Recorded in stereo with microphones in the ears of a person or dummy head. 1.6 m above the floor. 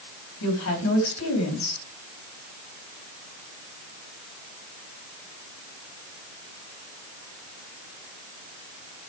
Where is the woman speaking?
85° left, 4.5 m.